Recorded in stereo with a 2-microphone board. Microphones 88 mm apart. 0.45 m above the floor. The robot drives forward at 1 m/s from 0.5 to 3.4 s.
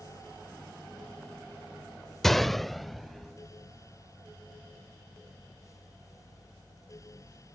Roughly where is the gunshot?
Centre.